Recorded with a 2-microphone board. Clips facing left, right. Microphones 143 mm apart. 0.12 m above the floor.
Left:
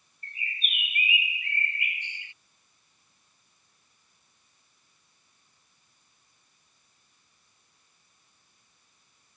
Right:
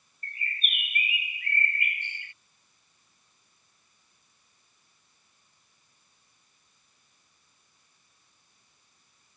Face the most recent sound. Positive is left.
turn(degrees=-55)  # may be behind; listen again after turning